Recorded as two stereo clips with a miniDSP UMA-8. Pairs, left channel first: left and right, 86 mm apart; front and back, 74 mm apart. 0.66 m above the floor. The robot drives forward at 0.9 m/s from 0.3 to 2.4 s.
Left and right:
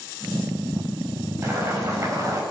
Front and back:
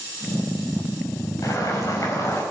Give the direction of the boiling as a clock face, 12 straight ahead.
1 o'clock.